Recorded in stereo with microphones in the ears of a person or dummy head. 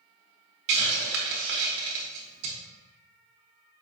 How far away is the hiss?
About 0.8 m.